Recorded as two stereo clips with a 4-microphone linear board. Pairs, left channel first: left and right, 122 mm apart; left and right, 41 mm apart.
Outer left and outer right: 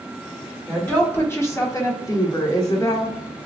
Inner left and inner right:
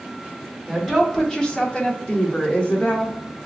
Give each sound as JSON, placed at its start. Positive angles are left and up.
{"t": 0.7, "sound": "a woman speaking", "side_deg": 10, "distance_m": 0.9}